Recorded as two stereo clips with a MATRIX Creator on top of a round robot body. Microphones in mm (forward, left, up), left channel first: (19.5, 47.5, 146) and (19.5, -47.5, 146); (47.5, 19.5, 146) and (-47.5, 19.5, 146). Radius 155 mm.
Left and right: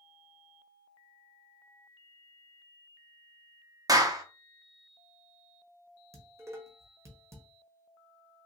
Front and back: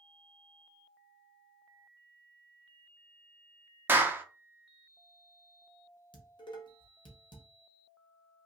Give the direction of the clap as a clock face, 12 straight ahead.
4 o'clock.